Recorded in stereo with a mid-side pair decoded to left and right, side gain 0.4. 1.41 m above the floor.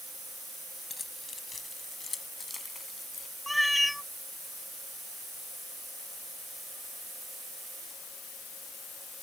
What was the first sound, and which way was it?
Keys jangling, 40° left.